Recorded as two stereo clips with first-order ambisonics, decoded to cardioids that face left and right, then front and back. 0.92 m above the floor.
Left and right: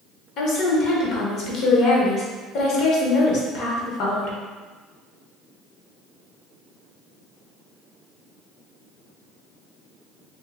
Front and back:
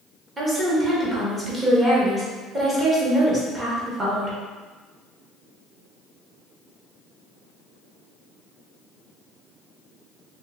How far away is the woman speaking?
About 1.0 m.